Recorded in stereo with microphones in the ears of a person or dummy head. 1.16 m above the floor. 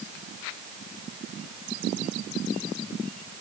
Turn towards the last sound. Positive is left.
No sound to turn to.